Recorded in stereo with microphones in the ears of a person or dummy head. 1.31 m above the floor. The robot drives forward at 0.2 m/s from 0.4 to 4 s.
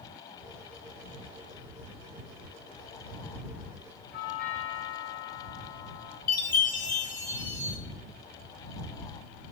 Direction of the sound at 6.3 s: 50° left (ahead or behind).